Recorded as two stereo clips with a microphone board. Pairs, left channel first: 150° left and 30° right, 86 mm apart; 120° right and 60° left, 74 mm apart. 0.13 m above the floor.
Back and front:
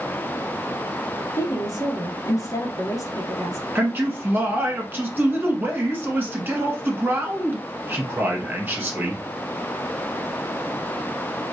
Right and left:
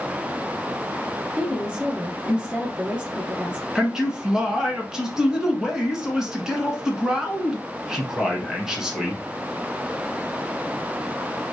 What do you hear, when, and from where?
1.4 s a woman speaking: 130° left, 1.5 m
3.8 s a man speaking: 10° right, 1.2 m